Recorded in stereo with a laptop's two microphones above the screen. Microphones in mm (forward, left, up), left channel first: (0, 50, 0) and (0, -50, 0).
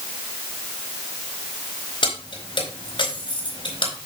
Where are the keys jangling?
55° left (ahead or behind), 4 m.